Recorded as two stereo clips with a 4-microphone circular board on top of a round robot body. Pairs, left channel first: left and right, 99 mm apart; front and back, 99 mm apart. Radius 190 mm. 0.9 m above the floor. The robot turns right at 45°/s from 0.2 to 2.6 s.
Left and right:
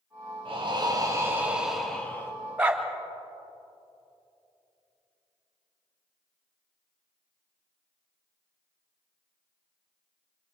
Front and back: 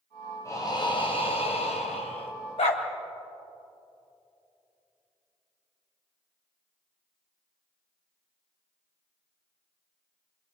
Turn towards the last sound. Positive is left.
turn(degrees=-10)